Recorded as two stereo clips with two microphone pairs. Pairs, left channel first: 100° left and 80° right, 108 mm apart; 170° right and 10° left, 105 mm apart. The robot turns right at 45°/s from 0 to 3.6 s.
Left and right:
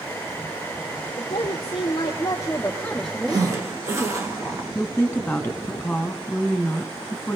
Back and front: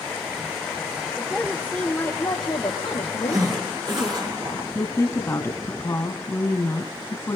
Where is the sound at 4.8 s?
165° left, 1.5 m.